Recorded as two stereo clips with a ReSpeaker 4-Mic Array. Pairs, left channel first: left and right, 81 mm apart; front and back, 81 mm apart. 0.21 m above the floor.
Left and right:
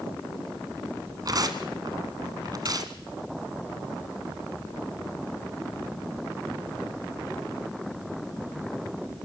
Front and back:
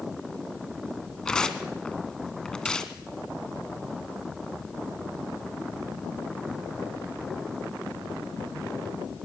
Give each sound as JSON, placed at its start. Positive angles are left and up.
{"t": 1.2, "sound": "tearing paper", "azimuth_deg": -80, "distance_m": 1.6}